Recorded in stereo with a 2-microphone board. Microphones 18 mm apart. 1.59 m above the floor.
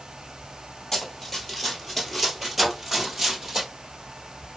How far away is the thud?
About 2.0 m.